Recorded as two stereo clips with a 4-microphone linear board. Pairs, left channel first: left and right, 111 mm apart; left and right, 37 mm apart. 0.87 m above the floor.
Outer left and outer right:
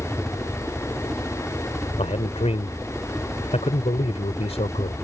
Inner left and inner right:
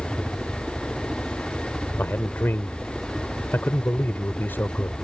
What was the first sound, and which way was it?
A helicopter, centre (ahead or behind).